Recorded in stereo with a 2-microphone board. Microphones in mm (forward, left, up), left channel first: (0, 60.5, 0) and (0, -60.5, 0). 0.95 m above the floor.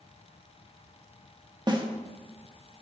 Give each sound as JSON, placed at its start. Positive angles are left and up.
{"t": 1.7, "sound": "a snare drum", "side_deg": -35, "distance_m": 1.0}